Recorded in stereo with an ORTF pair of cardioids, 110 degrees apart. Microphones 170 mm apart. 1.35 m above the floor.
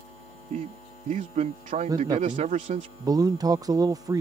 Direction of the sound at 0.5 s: 50° right.